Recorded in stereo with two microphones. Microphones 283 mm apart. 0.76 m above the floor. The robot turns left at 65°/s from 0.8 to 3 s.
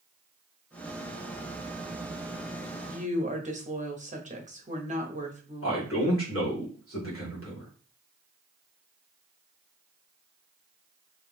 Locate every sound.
2.9 s a woman speaking: 30° right (ahead or behind), 1.1 m; by 6.2 s 25° right (ahead or behind), 1.1 m
5.6 s a man speaking: 50° left (ahead or behind), 2 m